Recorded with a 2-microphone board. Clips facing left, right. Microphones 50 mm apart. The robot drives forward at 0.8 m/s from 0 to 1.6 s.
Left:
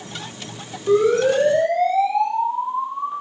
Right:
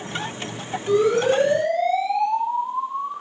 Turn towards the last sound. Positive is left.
turn(degrees=25)  # may be behind; listen again after turning